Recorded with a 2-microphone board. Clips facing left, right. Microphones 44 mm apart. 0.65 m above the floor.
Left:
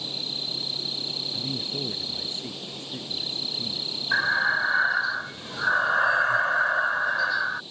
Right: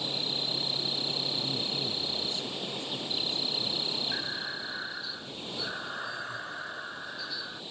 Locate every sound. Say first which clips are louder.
0.0 s an insect: even; 20° right (ahead or behind)
1.3 s a man speaking: left 1 dB; 35° left (ahead or behind)
4.1 s breathing: left 14 dB; 70° left (ahead or behind)